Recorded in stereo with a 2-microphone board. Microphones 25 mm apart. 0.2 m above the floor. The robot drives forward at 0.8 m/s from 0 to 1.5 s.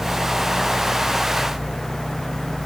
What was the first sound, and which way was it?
Only background noise.